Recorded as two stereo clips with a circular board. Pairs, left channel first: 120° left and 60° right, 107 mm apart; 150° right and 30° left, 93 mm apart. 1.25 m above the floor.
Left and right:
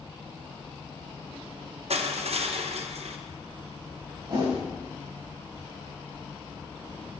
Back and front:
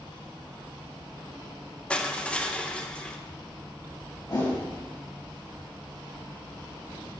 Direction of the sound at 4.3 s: 105° right.